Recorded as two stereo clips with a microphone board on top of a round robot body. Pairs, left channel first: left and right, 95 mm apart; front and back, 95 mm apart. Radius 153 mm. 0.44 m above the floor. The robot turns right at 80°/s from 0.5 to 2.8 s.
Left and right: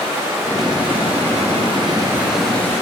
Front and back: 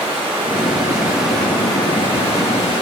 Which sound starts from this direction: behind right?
Running water, at 0.0 s.